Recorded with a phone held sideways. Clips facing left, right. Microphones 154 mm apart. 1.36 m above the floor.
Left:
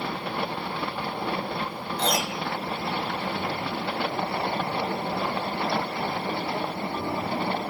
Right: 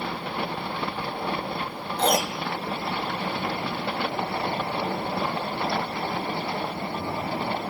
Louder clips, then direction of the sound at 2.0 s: Right 4 dB; 50° right (ahead or behind).